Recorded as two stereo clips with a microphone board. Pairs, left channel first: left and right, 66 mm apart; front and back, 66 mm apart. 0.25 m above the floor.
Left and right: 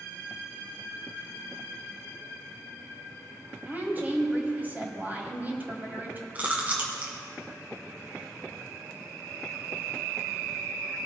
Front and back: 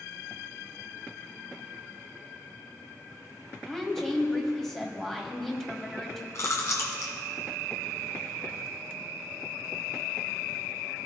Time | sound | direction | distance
3.7 | a woman speaking | 75° right | 1.7 m
6.3 | chewing | 30° right | 1.9 m